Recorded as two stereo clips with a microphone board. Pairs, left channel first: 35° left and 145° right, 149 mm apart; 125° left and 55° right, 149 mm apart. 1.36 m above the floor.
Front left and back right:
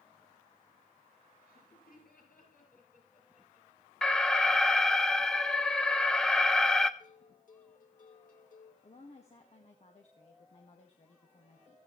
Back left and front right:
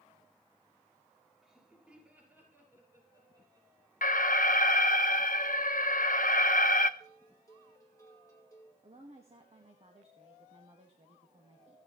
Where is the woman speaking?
10° right, 1.8 m.